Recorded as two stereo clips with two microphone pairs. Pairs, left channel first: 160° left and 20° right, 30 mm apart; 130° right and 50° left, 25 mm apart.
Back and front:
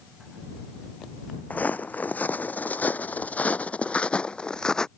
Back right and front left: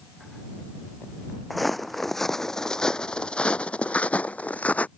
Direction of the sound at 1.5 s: 140° left.